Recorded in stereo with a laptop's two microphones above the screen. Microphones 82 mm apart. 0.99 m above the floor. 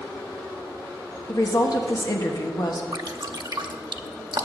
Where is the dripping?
60° right (ahead or behind), 0.8 m.